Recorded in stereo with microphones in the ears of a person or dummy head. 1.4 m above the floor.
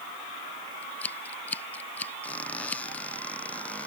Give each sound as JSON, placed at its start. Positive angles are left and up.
{"t": 0.8, "sound": "scissors", "side_deg": 5}
{"t": 2.2, "sound": "a squeak", "side_deg": 5}